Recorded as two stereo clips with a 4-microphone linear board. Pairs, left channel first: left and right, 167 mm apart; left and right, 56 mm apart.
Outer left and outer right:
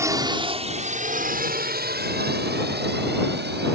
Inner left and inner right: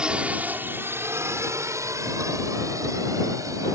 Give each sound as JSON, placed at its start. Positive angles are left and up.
{"t": 0.0, "sound": "a drone", "side_deg": -20}